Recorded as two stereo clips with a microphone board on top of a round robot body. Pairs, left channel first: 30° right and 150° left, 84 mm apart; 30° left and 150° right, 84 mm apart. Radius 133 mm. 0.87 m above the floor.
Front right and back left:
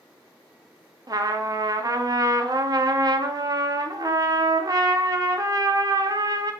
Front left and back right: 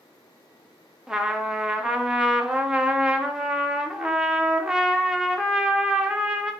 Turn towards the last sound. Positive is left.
turn(degrees=130)